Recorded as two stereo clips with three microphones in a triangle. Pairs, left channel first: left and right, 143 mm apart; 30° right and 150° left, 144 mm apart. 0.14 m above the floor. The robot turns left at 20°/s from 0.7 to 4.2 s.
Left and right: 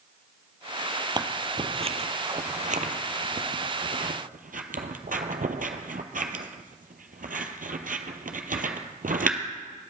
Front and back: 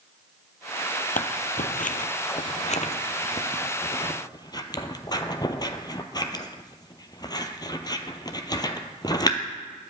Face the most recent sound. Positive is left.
turn(degrees=-90)